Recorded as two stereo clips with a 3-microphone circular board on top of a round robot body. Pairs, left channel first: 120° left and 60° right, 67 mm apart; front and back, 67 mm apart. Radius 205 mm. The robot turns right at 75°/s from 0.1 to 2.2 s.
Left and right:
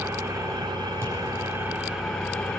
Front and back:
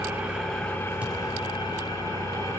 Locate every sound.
0.0 s an engine running: 115° right, 3.5 m; by 2.6 s 40° left, 3.5 m
1.0 s a thud: 110° right, 6 m; by 1.2 s 95° right, 6 m